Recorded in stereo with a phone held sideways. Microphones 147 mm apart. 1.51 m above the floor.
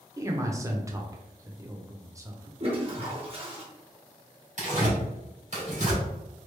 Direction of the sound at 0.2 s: 20° right (ahead or behind).